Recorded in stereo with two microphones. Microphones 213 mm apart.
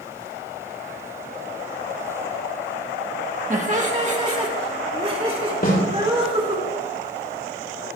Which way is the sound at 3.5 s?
35° right (ahead or behind).